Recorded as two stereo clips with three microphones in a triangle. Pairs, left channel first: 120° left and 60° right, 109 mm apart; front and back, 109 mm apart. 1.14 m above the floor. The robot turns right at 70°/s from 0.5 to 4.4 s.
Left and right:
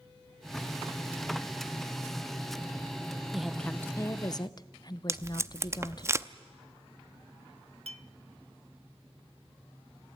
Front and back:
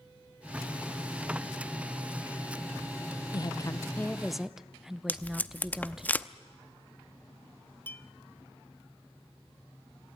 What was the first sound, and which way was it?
A woman speaking, 20° left.